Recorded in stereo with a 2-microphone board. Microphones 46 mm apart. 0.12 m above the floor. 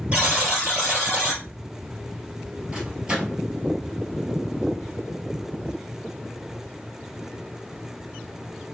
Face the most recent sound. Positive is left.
turn(degrees=-15)  # may be behind; listen again after turning